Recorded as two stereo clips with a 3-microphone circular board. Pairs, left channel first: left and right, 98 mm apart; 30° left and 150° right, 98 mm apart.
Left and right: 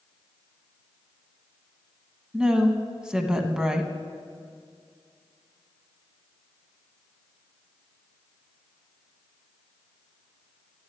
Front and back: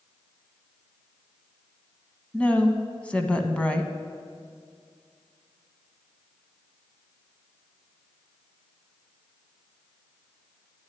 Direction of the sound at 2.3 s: 25° right.